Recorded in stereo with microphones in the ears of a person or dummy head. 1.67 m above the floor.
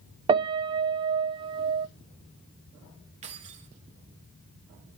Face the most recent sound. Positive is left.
turn(degrees=-40)  # may be behind; listen again after turning